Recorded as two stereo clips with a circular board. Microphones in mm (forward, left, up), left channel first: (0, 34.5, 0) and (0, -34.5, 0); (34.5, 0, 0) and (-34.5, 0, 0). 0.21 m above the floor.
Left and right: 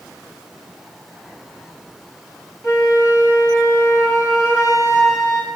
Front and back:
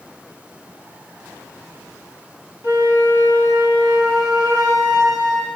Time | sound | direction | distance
2.6 | a flute | 20° right | 10 m